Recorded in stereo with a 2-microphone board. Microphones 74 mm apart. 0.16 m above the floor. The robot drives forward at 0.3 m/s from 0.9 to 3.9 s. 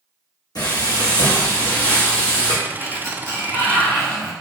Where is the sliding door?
40° left (ahead or behind), 1.1 m; by 4.3 s 30° left (ahead or behind), 1.4 m.